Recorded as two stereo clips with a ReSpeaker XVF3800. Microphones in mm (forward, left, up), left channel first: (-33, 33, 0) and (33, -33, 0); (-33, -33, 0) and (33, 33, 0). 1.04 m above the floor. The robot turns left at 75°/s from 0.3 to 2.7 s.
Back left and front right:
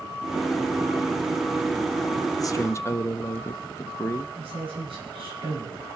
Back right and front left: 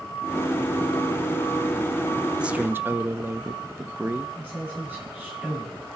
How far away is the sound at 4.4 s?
About 7.5 m.